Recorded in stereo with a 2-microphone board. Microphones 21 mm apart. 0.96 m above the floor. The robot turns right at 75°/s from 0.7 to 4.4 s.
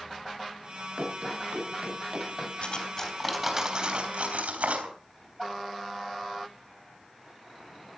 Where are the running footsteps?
55° right (ahead or behind), 7 m; by 2.5 s 10° right (ahead or behind), 6.5 m.